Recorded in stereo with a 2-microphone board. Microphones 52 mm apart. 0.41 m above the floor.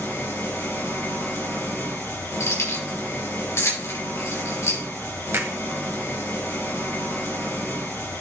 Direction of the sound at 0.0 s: 50° left (ahead or behind).